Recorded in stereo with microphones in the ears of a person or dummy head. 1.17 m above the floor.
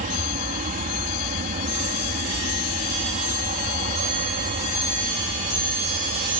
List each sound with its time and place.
0.0 s an aircraft: 40° right (ahead or behind)